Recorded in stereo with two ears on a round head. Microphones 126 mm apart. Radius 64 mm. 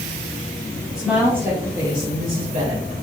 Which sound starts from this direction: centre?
A woman speaking, at 1.0 s.